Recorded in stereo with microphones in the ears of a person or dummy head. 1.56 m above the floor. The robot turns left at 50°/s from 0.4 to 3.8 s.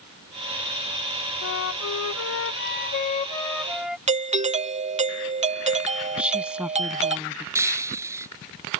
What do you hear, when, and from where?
1.4 s a flute: 120° left; by 4.0 s straight ahead
4.1 s a doorbell: 35° right (ahead or behind)
6.2 s a woman speaking: 5° right (ahead or behind)
7.5 s breaking glass: 15° right (ahead or behind)